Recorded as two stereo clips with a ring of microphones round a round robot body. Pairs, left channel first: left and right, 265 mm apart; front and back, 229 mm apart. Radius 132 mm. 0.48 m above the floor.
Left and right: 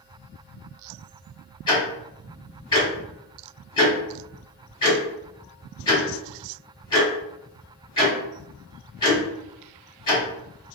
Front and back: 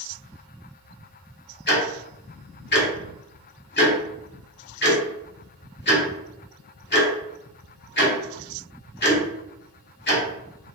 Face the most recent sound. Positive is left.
turn(degrees=20)